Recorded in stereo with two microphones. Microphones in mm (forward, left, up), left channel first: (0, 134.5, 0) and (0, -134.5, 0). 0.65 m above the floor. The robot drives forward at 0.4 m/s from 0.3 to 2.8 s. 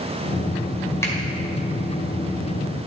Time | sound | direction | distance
1.0 | a finger snap | 10° left (ahead or behind) | 2 m